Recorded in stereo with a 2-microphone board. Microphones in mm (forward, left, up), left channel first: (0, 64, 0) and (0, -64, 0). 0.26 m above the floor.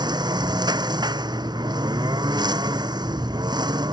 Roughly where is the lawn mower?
Right.